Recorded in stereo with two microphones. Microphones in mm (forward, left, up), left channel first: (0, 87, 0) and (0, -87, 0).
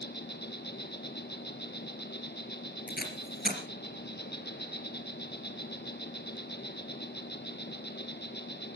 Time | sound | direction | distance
0.0 | an insect | 75° left (ahead or behind) | 1.8 m
2.9 | tape being pulled | 60° left (ahead or behind) | 3 m